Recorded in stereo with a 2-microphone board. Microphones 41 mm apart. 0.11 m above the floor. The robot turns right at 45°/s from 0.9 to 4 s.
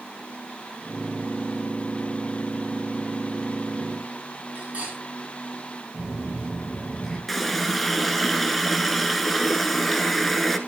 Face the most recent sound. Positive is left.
turn(degrees=5)  # may be behind; listen again after turning